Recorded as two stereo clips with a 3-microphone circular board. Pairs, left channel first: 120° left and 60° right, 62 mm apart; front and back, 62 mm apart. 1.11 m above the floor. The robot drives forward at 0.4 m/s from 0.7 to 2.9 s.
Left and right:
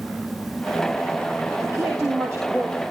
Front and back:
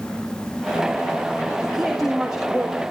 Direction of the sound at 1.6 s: 95° right.